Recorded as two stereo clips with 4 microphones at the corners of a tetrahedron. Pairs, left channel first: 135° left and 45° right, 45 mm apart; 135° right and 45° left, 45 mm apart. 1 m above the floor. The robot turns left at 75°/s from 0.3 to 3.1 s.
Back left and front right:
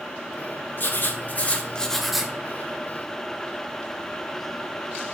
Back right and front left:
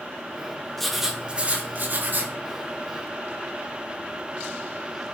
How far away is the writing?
About 0.7 m.